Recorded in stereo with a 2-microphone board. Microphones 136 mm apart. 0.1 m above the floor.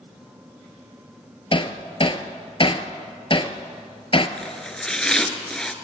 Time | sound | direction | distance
1.5 | hammering | 40° left (ahead or behind) | 1.3 m
4.4 | chopping | 5° left (ahead or behind) | 1.7 m